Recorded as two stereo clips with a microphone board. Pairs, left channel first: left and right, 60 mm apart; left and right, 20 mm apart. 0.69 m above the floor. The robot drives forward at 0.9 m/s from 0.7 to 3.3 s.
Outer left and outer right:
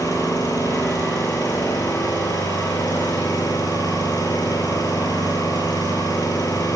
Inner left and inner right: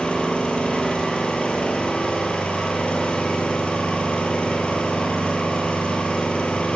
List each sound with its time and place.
0.0 s an engine running: 75° left (ahead or behind), 7.5 m; by 6.8 s 85° left, 7 m